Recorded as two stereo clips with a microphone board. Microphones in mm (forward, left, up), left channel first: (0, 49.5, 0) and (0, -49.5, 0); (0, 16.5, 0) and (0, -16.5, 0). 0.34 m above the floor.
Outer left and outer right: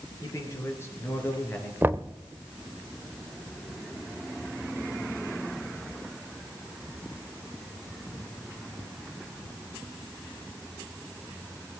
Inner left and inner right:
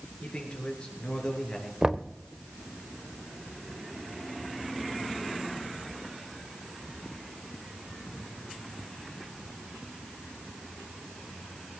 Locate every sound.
0.2 s a man speaking: 35° left (ahead or behind), 5.5 m; by 1.7 s 15° left (ahead or behind), 5.5 m
1.8 s knocking: 25° right (ahead or behind), 0.7 m